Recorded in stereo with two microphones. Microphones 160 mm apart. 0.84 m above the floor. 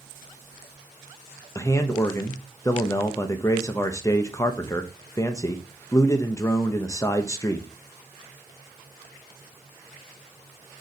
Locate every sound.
1.6 s a man speaking: 20° left (ahead or behind), 0.5 m